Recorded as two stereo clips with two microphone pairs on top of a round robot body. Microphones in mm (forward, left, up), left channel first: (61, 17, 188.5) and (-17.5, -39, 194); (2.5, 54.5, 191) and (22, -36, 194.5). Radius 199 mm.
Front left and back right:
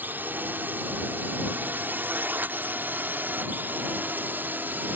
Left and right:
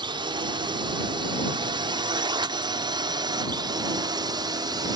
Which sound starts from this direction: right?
A drone, at 0.0 s.